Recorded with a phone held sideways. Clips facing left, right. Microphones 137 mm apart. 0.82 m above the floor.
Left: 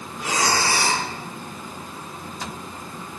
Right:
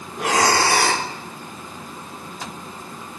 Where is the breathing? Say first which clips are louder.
Right 5 dB; 70° right (ahead or behind), 0.9 m.